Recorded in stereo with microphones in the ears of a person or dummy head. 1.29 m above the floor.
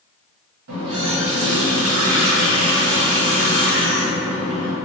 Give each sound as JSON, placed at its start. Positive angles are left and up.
{"t": 0.7, "sound": "a running tap", "side_deg": -70, "distance_m": 1.1}